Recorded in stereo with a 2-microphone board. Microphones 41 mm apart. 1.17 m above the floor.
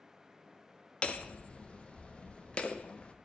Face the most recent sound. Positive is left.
turn(degrees=25)  # may be behind; listen again after turning